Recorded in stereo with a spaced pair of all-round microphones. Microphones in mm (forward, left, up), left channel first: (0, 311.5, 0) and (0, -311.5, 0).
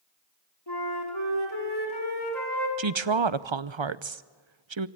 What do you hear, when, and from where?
0.7 s a flute: 40° left (ahead or behind), 5 m
2.8 s a woman speaking: 50° right (ahead or behind), 0.8 m